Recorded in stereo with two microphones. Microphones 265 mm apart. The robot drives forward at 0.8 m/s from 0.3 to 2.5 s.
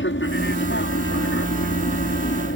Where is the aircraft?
45° left (ahead or behind).